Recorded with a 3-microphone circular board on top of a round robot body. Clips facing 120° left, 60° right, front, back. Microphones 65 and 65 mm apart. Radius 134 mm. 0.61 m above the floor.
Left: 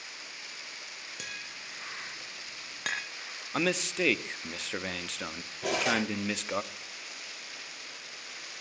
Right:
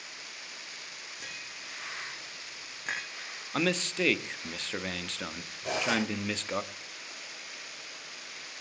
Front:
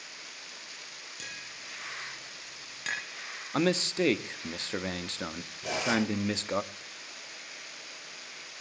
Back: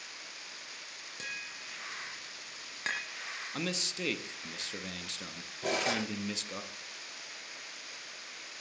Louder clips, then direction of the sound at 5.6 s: Left 1 dB, front 3 dB; 140° left.